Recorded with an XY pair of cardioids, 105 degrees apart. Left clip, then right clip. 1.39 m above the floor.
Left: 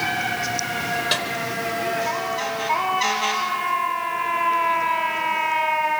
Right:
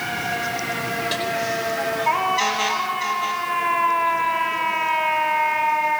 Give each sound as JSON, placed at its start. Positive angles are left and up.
{"t": 1.1, "sound": "a snare drum", "azimuth_deg": 40, "distance_m": 4.5}